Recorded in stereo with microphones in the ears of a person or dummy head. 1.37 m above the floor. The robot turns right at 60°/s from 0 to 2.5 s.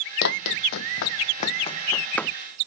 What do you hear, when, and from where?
0.2 s running footsteps: 60° left (ahead or behind); by 2.3 s centre (ahead or behind)